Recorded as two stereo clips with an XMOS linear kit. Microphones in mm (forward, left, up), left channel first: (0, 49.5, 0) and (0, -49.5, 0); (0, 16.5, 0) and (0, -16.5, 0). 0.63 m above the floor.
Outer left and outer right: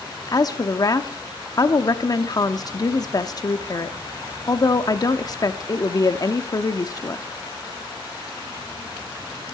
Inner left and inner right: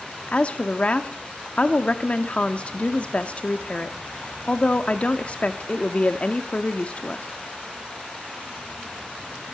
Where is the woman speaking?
40° left (ahead or behind), 0.8 m.